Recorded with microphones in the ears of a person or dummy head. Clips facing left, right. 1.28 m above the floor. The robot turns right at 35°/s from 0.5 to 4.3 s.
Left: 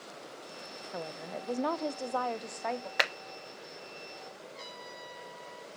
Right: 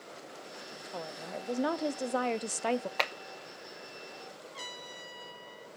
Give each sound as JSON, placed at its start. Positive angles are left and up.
{"t": 0.9, "sound": "a woman speaking", "azimuth_deg": 165, "distance_m": 0.6}
{"t": 3.0, "sound": "a clap", "side_deg": 15, "distance_m": 0.9}
{"t": 4.5, "sound": "a trumpet", "side_deg": -65, "distance_m": 3.0}